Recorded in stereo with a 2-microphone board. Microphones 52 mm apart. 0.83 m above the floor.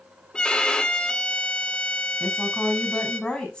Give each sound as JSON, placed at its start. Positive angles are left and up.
{"t": 0.3, "sound": "a violin", "side_deg": 20, "distance_m": 1.7}
{"t": 2.2, "sound": "a woman speaking", "side_deg": 20, "distance_m": 6.0}